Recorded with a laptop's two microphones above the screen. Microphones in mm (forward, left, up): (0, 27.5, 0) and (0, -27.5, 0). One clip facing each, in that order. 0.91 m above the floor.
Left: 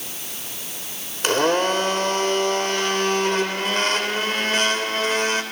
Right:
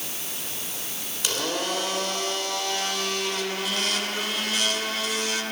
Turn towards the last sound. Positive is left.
turn(degrees=45)  # may be behind; listen again after turning